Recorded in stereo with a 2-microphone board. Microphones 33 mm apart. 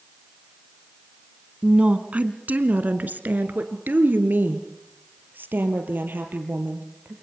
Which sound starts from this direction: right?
A woman speaking, at 1.6 s.